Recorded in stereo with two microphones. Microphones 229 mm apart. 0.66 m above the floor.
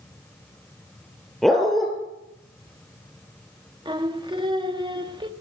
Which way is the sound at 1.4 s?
Centre (ahead or behind).